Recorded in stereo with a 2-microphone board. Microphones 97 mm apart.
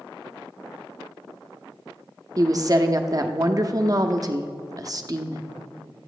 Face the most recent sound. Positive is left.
turn(degrees=-40)  # may be behind; listen again after turning